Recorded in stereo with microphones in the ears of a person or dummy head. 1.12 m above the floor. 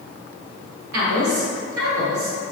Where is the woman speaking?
65° right (ahead or behind), 1.2 m.